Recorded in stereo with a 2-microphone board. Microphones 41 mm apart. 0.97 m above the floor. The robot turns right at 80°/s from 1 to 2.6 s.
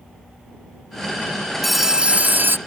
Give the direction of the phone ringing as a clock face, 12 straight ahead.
6 o'clock.